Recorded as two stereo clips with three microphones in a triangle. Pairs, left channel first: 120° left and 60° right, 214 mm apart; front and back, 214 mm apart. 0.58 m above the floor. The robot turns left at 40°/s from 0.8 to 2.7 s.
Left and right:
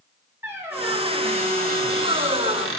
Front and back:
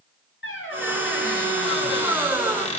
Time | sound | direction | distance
0.4 | a squeak | 20° left | 1.5 m